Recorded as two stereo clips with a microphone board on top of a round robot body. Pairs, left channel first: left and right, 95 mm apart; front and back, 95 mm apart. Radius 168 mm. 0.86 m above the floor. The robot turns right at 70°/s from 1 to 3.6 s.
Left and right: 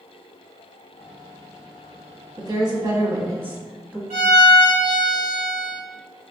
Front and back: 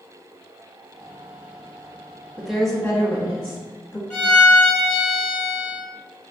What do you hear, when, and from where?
2.4 s a woman speaking: 105° right, 0.9 m; by 4.0 s 20° right, 0.9 m
4.1 s a violin: 60° right, 0.7 m